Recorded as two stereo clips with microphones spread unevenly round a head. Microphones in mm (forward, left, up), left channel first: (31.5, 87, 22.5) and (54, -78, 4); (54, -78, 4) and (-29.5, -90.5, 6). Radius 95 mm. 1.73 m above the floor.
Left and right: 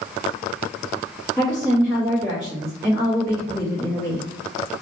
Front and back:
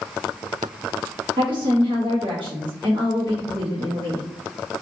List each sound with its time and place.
1.4 s a woman speaking: 160° right, 1.2 m